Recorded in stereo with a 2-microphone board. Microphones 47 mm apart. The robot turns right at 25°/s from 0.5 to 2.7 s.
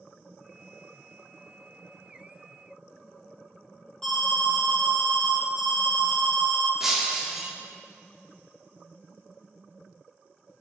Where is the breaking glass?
5° right (ahead or behind), 0.6 m.